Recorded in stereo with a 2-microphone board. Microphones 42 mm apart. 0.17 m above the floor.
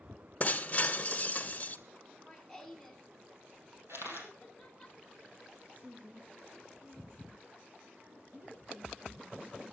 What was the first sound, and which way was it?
Breaking glass, 30° left (ahead or behind).